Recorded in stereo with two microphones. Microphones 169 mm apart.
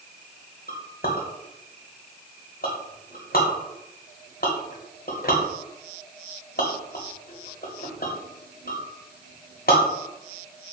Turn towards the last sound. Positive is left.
turn(degrees=65)  # may be behind; listen again after turning